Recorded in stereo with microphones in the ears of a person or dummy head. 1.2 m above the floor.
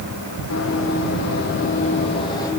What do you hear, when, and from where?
0.5 s running footsteps: 70° left (ahead or behind), 3 m; by 2.5 s 15° left (ahead or behind), 2.5 m